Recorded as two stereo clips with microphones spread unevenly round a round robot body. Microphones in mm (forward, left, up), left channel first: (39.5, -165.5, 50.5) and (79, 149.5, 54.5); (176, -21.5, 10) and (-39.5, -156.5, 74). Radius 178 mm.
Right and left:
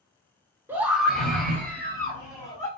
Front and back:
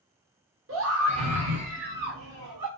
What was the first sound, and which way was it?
A scream, 165° left.